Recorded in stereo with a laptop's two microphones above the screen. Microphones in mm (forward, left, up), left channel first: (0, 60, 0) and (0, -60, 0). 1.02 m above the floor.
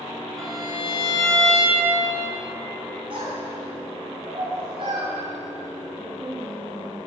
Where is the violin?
Centre (ahead or behind), 1.6 m.